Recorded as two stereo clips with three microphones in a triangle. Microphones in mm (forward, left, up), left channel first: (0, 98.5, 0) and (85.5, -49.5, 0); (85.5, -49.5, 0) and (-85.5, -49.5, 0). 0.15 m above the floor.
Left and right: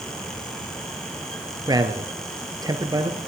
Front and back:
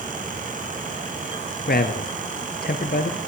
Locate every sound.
1.7 s a man speaking: 5° left, 2.5 m